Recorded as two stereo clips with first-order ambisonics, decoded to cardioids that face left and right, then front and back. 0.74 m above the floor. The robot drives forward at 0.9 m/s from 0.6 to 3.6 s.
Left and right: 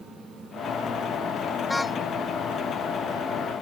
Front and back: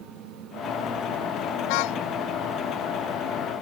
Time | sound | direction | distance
1.7 | a car horn | 5° left | ?